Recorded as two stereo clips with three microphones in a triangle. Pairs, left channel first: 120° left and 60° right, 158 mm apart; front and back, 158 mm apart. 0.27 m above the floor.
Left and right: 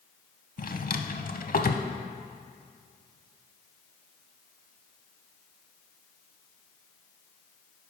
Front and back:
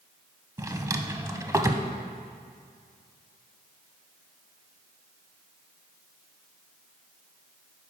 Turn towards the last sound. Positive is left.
turn(degrees=110)